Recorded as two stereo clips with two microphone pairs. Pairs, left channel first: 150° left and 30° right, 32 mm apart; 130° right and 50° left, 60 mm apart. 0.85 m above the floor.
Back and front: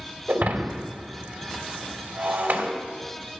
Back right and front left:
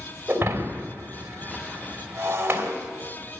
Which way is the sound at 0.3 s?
5° right.